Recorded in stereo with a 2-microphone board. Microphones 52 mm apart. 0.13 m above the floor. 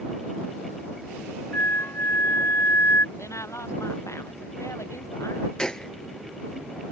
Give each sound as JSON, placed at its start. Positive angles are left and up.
{"t": 1.5, "sound": "a flute", "side_deg": 55}
{"t": 3.1, "sound": "a woman speaking", "side_deg": 70}
{"t": 5.6, "sound": "a gunshot", "side_deg": 15}